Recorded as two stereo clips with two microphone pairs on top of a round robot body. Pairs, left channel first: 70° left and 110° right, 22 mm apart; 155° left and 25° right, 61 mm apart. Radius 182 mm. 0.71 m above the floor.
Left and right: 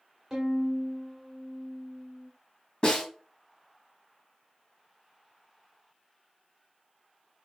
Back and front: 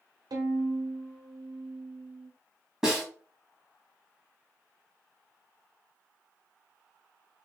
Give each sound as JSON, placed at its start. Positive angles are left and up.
{"t": 0.3, "sound": "a violin", "azimuth_deg": -35, "distance_m": 0.8}
{"t": 2.8, "sound": "a snare drum", "azimuth_deg": 50, "distance_m": 1.8}